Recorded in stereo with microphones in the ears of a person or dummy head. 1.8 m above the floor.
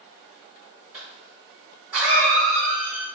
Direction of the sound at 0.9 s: 10° right (ahead or behind).